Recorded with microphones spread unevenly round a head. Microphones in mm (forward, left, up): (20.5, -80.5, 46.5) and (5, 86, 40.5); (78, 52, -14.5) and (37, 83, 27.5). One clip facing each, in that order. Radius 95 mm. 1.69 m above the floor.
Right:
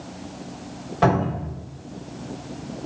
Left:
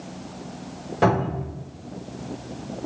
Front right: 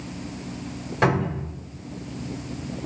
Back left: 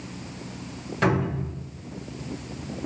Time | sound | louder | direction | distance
1.0 | a cupboard door | right 1 dB, front right 1 dB | 75° left | 1.4 m